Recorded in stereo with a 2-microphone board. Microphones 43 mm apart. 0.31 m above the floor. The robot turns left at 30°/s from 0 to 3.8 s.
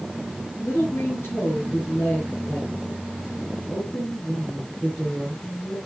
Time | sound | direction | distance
0.6 | a woman speaking | 115° left | 6 m